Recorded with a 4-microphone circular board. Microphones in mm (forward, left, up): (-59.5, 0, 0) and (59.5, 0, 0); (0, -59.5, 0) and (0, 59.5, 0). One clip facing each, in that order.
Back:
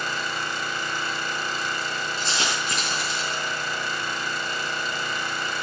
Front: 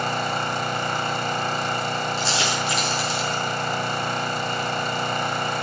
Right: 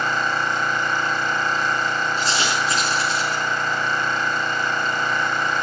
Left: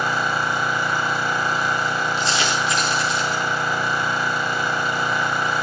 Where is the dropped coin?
140° right, 7 m.